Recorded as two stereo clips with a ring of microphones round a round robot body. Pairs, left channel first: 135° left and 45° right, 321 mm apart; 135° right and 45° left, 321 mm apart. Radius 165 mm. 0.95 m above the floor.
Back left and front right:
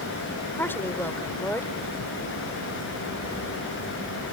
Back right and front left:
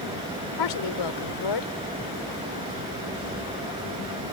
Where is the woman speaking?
140° right.